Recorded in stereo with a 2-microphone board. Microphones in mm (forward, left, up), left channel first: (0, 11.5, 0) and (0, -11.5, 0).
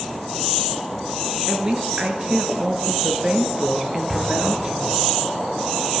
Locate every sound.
1.5 s a woman speaking: 35° right (ahead or behind), 5.5 m
4.1 s an explosion: 10° right (ahead or behind), 6.5 m